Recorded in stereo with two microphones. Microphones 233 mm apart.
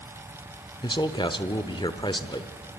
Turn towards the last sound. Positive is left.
turn(degrees=20)  # may be behind; listen again after turning